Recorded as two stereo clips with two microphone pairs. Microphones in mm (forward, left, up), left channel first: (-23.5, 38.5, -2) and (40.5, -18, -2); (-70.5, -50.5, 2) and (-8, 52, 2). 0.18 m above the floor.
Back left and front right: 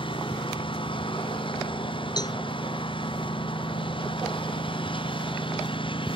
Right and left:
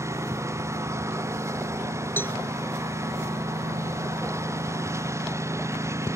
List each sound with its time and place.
0.0 s a lawn mower: 125° left
2.2 s a cowbell: 170° left